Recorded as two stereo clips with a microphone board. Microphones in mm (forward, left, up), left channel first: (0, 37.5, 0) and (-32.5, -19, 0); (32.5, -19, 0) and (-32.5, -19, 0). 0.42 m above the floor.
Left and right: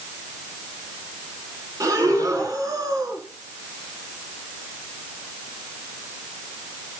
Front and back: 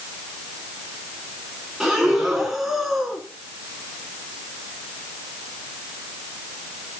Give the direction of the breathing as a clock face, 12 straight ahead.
3 o'clock.